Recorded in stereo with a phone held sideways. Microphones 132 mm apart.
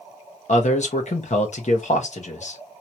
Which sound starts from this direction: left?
A man speaking, at 0.5 s.